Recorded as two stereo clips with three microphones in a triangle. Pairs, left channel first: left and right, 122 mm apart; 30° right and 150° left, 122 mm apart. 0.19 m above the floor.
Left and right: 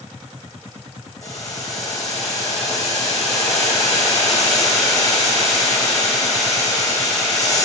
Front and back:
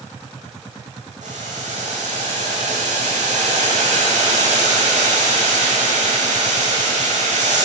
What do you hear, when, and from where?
1.2 s boiling: 150° left, 2 m